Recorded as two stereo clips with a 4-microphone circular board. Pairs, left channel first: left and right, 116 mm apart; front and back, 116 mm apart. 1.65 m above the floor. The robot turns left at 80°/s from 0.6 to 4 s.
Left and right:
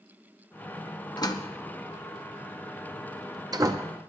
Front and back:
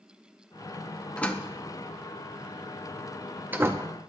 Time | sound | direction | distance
1.2 | a door slam | 75° left | 0.7 m